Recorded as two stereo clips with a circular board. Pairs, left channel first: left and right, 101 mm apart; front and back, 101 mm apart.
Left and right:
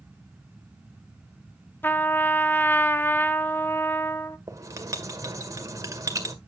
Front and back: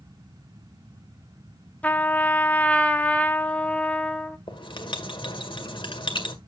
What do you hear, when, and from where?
1.8 s a trumpet: 50° left, 0.9 m
4.5 s writing: 35° right, 1.8 m